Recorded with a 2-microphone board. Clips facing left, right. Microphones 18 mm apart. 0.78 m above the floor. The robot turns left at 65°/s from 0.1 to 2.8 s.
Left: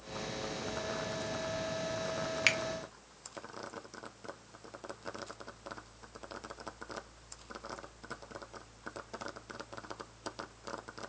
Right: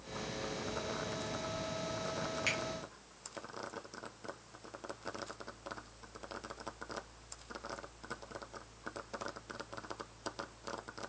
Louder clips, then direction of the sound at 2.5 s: Left 7 dB; 45° left (ahead or behind).